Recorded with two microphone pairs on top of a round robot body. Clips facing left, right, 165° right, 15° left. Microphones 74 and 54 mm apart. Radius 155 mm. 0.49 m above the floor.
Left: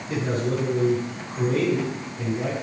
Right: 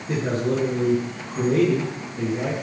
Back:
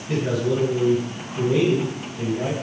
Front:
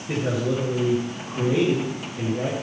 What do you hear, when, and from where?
0.1 s a man speaking: 45° right, 9.5 m